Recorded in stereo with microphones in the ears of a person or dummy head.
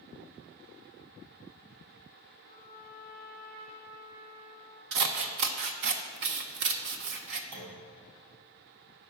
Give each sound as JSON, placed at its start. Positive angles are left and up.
{"t": 2.5, "sound": "a trumpet", "side_deg": -65, "distance_m": 3.0}
{"t": 4.9, "sound": "scissors", "side_deg": -55, "distance_m": 0.5}
{"t": 7.5, "sound": "a clunk", "side_deg": -60, "distance_m": 1.6}